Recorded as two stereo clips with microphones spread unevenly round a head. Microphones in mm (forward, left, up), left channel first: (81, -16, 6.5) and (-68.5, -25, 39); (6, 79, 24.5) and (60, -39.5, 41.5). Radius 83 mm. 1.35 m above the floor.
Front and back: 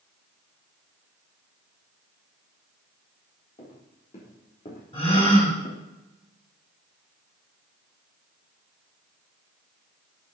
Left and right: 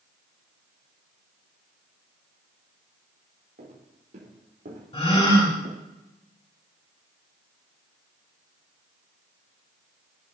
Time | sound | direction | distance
3.6 | footsteps | 50° right | 4 m
4.9 | a gasp | 70° left | 4 m